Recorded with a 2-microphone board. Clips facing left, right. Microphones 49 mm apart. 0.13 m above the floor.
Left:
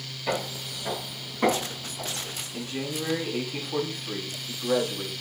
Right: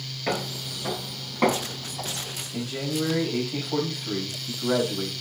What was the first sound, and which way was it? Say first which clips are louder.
Footsteps: right 1 dB; 50° right (ahead or behind).